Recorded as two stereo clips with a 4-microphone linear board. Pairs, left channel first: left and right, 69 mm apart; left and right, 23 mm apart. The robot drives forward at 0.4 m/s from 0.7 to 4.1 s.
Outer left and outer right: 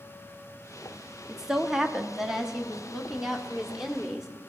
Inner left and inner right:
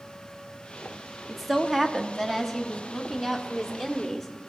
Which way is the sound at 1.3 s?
10° right (ahead or behind).